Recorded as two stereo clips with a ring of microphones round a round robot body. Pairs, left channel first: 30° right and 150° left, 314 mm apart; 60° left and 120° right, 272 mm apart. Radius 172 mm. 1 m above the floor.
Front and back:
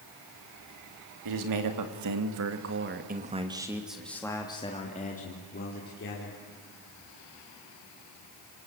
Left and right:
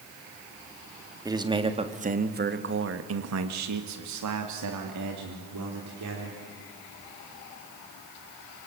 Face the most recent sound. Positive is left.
turn(degrees=-85)